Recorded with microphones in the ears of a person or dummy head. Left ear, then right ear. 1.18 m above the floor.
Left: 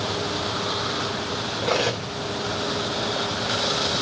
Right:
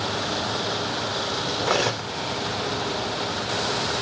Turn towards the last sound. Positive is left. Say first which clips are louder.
# left 1 dB
turn(degrees=-70)  # may be behind; listen again after turning